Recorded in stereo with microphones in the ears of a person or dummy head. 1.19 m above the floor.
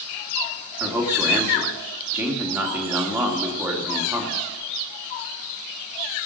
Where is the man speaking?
5° right (ahead or behind), 2.5 m.